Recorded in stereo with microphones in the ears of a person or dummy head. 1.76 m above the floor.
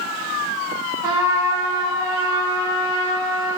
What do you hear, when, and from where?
1.0 s a trumpet: 15° right (ahead or behind), 0.7 m